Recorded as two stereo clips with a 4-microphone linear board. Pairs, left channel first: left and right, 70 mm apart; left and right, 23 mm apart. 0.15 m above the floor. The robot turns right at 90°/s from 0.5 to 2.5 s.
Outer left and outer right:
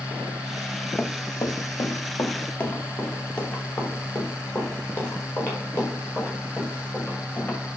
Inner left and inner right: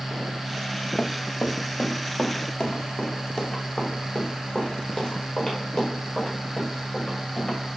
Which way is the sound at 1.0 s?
30° left (ahead or behind).